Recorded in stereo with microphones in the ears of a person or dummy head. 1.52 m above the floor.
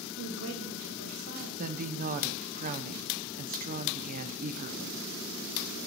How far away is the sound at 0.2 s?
About 1.6 m.